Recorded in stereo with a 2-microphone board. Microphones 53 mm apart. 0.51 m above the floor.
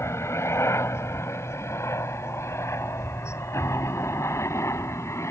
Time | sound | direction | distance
0.0 | a helicopter | 65° left (ahead or behind) | ?